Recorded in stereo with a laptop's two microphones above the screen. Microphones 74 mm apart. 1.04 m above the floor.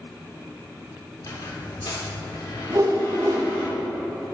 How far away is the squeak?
About 1.0 m.